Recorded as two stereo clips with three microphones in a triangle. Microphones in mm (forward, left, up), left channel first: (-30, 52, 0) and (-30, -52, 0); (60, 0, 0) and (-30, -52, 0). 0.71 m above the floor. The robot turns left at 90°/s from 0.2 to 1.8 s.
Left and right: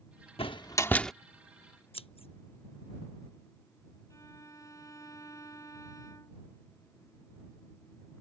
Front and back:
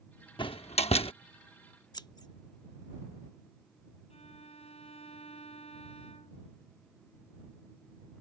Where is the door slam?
65° left; by 1.1 s straight ahead.